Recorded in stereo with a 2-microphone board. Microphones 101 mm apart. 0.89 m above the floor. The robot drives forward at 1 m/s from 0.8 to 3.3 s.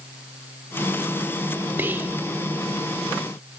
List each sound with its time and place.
1.8 s whispering: 20° right (ahead or behind), 0.5 m; by 2.2 s 15° right (ahead or behind), 0.6 m